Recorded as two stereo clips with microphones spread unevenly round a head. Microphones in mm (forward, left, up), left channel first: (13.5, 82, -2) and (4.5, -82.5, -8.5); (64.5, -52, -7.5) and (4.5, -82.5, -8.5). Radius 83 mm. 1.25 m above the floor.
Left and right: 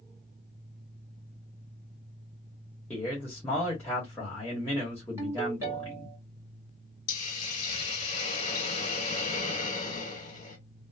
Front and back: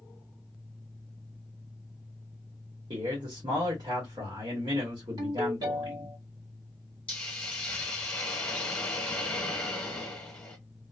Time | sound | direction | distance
2.9 | a man speaking | 165° left | 1.2 m
5.2 | a ringtone | 170° right | 1.6 m
7.1 | a hiss | 90° left | 1.3 m